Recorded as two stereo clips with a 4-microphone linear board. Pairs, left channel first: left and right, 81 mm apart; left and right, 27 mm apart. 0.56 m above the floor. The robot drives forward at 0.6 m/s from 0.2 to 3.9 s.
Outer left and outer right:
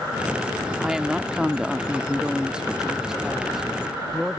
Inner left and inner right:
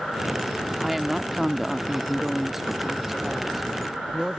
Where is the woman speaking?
5° right (ahead or behind).